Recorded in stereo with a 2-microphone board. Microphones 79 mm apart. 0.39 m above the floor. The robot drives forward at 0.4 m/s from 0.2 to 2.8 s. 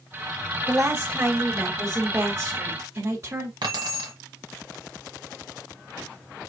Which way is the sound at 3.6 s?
75° right (ahead or behind).